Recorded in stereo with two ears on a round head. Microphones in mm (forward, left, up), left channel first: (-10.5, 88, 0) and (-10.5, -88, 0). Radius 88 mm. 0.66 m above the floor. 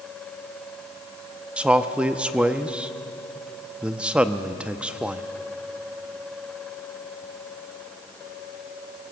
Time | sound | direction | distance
1.6 | a man speaking | 5° right (ahead or behind) | 0.6 m